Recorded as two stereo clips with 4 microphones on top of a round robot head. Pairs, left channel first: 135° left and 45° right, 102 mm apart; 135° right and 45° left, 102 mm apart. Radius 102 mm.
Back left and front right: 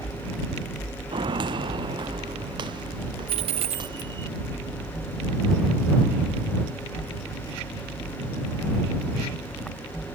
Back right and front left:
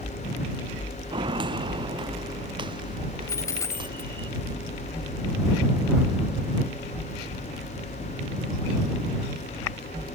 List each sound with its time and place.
1.1 s footsteps: straight ahead
3.3 s a dropped coin: 70° right